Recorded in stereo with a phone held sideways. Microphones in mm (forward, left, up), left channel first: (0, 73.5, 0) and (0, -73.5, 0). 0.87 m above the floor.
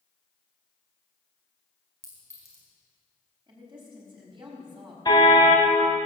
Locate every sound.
2.0 s a clink: 20° left (ahead or behind), 5 m
3.5 s a woman speaking: 35° right (ahead or behind), 4.5 m
5.0 s a car horn: 30° left (ahead or behind), 2 m